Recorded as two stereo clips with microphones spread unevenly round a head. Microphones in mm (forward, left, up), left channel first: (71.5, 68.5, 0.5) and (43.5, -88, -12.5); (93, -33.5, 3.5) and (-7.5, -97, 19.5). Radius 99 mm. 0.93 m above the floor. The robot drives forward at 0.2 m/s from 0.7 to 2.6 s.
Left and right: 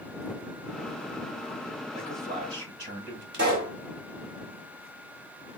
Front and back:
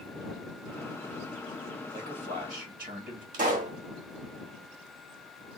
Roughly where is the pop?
Behind right.